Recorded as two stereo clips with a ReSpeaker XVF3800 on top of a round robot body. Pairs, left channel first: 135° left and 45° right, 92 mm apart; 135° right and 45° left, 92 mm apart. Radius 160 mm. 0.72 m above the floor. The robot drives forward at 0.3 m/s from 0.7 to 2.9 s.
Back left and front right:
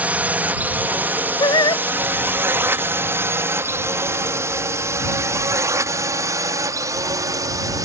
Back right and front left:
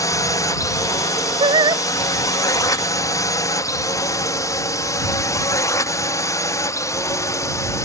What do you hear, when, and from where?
0.0 s a drone: 110° right; by 7.9 s 85° right
1.4 s singing: 85° left; by 1.8 s 95° left